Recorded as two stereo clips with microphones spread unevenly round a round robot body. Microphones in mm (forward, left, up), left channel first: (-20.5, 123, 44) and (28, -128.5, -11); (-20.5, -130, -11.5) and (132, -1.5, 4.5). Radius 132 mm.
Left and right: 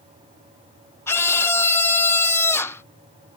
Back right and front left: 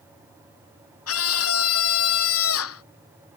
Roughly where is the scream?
Behind.